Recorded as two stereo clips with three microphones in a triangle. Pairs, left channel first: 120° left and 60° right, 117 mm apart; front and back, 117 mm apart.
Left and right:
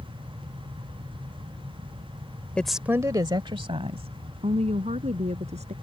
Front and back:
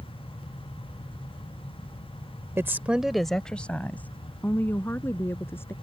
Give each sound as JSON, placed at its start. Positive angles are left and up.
{"t": 2.6, "sound": "a woman speaking", "azimuth_deg": 180}